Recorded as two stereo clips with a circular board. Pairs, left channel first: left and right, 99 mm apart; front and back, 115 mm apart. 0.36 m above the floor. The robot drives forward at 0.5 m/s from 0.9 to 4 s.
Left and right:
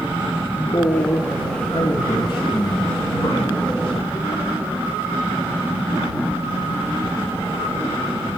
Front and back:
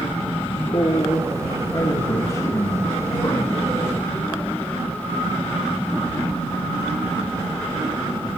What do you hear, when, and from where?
0.5 s a man speaking: 40° left, 4 m; by 4.8 s 60° left, 3 m